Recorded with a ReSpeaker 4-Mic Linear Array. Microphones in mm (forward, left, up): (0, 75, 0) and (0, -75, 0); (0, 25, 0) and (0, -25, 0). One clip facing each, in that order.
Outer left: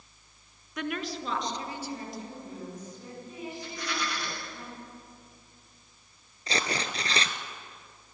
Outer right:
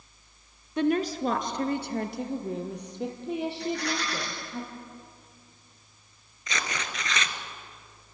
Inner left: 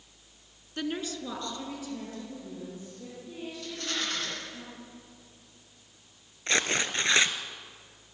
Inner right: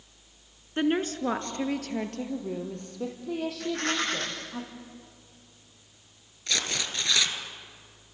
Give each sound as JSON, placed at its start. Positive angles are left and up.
{"t": 0.8, "sound": "a woman speaking", "side_deg": -30, "distance_m": 1.7}
{"t": 3.6, "sound": "a rattle", "side_deg": -70, "distance_m": 9.5}
{"t": 6.5, "sound": "tearing paper", "side_deg": 35, "distance_m": 1.6}